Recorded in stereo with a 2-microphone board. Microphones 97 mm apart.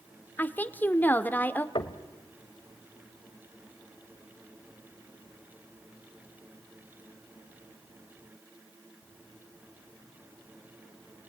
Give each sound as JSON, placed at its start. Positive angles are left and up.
{"t": 0.4, "sound": "a woman speaking", "side_deg": 20, "distance_m": 1.0}
{"t": 1.8, "sound": "knocking", "side_deg": 60, "distance_m": 1.2}